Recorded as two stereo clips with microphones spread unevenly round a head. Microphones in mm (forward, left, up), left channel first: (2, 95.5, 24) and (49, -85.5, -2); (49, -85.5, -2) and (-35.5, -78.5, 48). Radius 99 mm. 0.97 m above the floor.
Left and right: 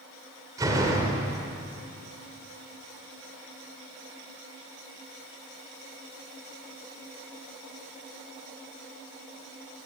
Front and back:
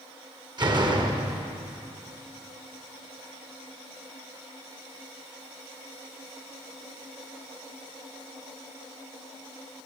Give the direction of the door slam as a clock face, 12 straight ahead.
5 o'clock.